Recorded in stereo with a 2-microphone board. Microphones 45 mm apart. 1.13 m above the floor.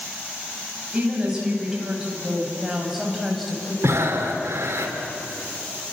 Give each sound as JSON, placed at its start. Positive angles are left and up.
{"t": 0.9, "sound": "a woman speaking", "side_deg": -15, "distance_m": 7.5}
{"t": 3.8, "sound": "breathing", "side_deg": -85, "distance_m": 3.0}